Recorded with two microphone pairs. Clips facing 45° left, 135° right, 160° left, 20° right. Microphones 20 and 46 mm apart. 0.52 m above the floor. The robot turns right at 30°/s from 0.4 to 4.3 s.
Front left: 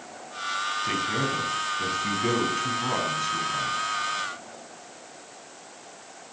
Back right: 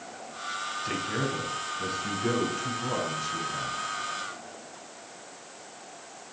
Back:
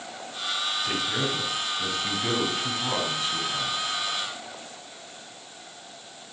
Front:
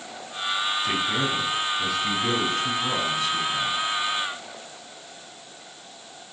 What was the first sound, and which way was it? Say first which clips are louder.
A man speaking: front left 2 dB, front 3 dB; 25° left.